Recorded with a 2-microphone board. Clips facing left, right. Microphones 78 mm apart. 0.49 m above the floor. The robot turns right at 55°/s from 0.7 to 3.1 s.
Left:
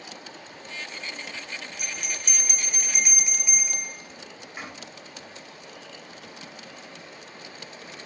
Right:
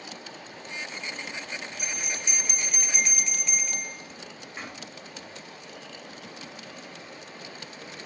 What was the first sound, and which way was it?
A bell, 95° left.